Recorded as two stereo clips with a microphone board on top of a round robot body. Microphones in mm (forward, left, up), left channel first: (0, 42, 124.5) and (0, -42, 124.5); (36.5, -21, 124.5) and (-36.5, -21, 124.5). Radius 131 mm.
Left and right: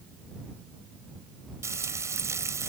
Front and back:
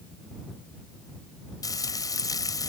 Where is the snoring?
No snoring in this recording.